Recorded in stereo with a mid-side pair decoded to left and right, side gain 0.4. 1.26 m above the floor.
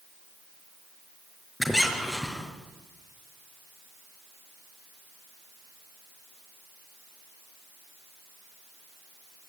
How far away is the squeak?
About 6 m.